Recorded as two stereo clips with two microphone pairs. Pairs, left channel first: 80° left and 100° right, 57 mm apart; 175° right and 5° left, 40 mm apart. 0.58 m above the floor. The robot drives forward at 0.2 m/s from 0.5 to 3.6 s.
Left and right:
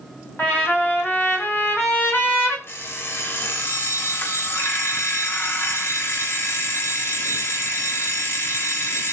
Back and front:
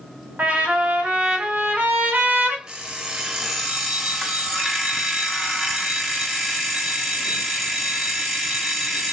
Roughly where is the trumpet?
Ahead left.